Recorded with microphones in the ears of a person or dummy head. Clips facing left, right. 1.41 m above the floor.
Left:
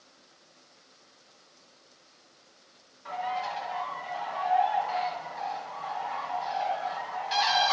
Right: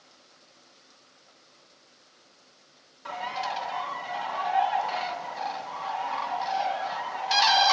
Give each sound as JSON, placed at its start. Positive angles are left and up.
{"t": 3.0, "sound": "a bird", "side_deg": -65, "distance_m": 1.4}